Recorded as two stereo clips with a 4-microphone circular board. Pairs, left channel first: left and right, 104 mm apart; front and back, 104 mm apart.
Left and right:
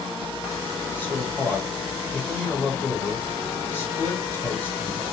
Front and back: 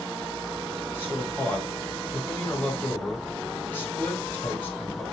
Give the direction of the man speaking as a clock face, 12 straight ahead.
10 o'clock.